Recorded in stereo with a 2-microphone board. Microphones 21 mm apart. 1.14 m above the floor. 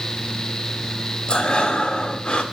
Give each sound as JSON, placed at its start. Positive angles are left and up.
{"t": 1.3, "sound": "breathing", "side_deg": 50, "distance_m": 1.7}